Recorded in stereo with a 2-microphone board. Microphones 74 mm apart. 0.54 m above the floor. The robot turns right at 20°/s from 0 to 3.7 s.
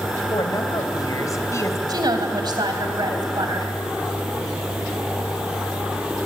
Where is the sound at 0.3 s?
65° left (ahead or behind), 2 m; by 1.8 s 40° left (ahead or behind), 2 m.